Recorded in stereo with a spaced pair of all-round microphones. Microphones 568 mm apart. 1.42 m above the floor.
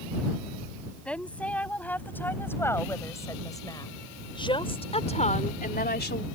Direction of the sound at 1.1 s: Centre (ahead or behind).